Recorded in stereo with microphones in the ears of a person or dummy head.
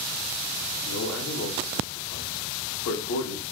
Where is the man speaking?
65° left (ahead or behind), 0.6 m.